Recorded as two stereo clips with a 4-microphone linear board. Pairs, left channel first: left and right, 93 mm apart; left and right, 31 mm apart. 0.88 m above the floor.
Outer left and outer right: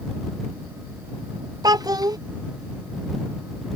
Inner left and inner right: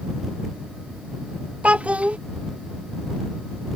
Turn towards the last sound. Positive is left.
turn(degrees=-45)  # may be behind; listen again after turning